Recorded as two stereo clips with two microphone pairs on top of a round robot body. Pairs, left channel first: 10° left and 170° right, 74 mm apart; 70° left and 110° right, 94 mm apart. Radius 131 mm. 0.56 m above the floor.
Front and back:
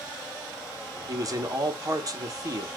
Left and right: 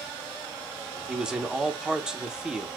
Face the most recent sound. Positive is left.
turn(degrees=180)